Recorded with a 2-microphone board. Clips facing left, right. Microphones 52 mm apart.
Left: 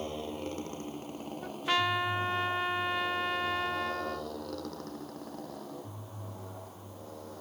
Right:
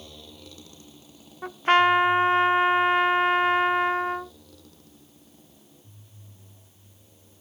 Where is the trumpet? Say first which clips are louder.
Right 11 dB; 40° right (ahead or behind).